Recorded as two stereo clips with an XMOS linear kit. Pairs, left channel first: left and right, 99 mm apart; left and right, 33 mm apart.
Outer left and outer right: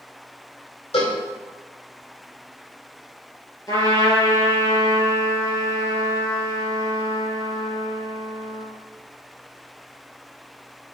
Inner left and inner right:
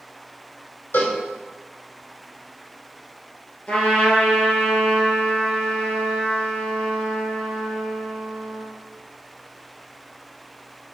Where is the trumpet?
35° left (ahead or behind), 2.5 m.